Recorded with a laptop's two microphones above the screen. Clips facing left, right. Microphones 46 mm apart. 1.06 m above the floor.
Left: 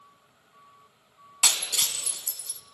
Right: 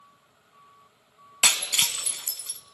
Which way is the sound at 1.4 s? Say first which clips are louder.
Right 4 dB; 55° right (ahead or behind).